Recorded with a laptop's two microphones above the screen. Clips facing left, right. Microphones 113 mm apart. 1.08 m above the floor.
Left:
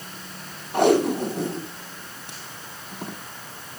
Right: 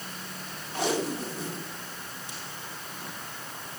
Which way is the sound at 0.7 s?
60° left (ahead or behind).